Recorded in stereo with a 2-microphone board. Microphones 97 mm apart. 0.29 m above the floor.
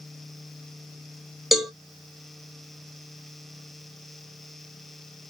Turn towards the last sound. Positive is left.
turn(degrees=0)  # may be behind; listen again after turning